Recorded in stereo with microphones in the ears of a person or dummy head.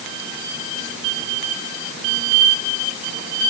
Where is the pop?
I don't hear a pop.